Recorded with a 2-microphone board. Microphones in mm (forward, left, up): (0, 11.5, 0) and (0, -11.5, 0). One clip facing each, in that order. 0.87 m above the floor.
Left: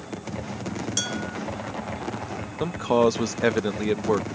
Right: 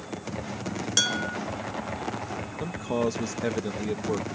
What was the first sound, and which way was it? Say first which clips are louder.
Dishes clattering: right 6 dB; 20° right (ahead or behind).